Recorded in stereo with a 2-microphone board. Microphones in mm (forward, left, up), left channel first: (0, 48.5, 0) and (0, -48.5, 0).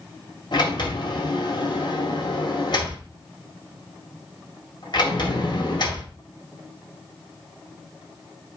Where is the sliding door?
55° left (ahead or behind), 2 m.